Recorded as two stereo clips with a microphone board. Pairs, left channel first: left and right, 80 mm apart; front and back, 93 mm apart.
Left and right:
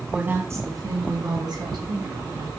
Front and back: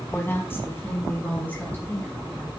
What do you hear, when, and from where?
0.1 s a woman speaking: 30° right, 1.2 m; by 2.5 s 75° right, 4 m